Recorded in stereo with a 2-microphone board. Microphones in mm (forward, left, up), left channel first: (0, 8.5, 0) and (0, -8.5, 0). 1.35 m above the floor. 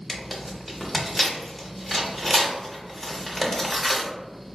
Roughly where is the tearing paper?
Centre.